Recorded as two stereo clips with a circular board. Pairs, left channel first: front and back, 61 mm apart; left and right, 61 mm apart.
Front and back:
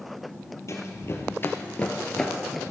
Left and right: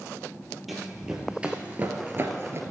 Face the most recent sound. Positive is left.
turn(degrees=-90)